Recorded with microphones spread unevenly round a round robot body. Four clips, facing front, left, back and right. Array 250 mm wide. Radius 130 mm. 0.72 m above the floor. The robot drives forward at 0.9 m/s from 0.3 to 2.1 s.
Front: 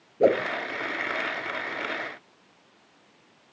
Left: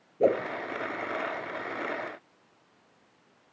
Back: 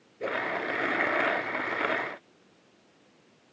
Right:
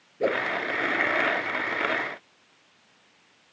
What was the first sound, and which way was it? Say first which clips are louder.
A whoosh: left 2 dB, front 11 dB; straight ahead.